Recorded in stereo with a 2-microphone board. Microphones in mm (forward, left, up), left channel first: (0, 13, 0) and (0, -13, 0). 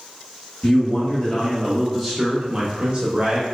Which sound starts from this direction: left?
A man speaking, at 0.6 s.